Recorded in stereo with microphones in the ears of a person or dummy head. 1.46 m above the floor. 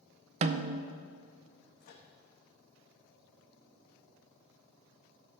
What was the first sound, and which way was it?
A snare drum, 40° right (ahead or behind).